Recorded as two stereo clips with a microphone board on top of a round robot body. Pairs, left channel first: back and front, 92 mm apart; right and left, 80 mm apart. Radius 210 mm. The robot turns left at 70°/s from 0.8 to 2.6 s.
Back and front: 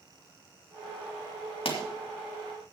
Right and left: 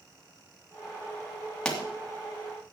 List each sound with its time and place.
1.6 s a pop: 170° right, 2.5 m; by 1.8 s straight behind, 2.5 m